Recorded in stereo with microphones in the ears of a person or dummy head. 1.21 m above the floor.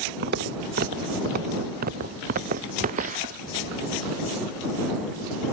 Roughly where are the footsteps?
Right.